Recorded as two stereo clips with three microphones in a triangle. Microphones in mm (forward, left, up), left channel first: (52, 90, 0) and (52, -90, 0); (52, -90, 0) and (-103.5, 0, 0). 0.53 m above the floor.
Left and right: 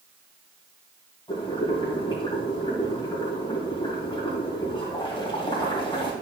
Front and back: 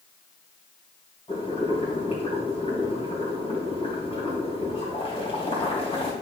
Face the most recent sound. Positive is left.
turn(degrees=30)